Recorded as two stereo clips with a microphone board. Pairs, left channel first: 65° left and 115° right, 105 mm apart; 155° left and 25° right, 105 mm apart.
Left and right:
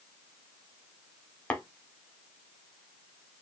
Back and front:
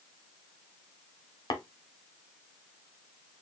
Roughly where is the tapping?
Behind left.